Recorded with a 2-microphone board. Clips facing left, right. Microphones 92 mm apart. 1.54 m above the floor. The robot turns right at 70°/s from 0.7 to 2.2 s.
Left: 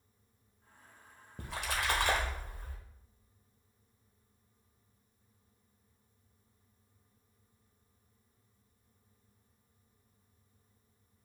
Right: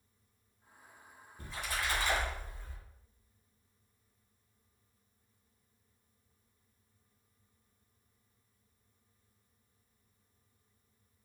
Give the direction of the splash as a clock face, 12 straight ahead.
10 o'clock.